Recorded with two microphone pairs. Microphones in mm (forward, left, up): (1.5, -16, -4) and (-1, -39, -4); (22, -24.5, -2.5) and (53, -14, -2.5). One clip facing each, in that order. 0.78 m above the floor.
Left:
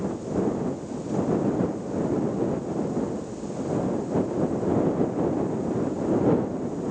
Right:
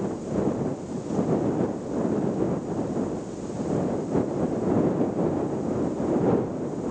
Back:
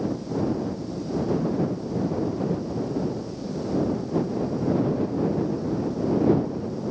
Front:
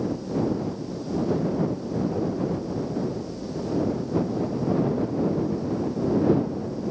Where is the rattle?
No rattle in this recording.